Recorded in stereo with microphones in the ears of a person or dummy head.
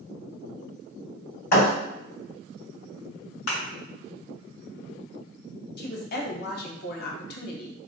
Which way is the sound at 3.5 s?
60° left (ahead or behind).